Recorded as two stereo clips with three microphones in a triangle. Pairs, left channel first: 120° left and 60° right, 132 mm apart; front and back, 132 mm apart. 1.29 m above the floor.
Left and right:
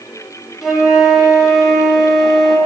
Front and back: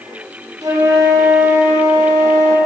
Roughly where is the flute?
Behind right.